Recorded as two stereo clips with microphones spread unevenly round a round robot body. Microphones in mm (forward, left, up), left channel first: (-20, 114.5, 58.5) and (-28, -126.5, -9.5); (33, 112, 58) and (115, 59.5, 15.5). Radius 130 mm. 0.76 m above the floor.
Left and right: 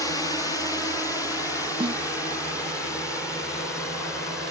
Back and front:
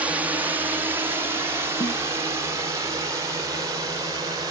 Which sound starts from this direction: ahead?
A drone, at 0.0 s.